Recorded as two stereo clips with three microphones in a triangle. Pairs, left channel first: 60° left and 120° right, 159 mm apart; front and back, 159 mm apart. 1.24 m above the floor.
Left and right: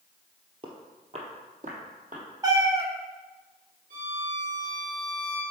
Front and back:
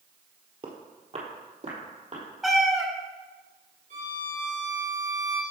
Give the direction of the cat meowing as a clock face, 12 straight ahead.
3 o'clock.